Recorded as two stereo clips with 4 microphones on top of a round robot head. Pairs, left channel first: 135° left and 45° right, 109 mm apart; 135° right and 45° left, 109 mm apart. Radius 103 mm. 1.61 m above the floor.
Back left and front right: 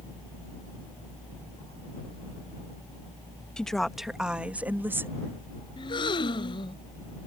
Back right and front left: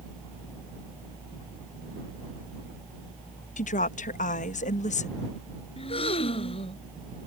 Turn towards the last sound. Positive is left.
turn(degrees=-175)